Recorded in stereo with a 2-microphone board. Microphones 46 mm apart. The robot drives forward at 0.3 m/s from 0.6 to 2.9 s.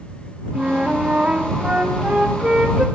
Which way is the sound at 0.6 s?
30° right (ahead or behind).